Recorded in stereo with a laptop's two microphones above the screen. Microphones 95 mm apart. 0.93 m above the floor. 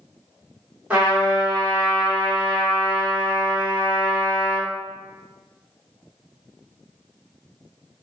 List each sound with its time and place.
0.9 s a trumpet: 15° right (ahead or behind), 1.3 m